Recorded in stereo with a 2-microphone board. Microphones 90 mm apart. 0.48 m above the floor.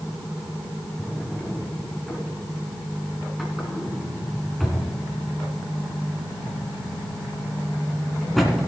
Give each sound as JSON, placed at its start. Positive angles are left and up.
{"t": 1.0, "sound": "a drawer", "side_deg": 0, "distance_m": 2.0}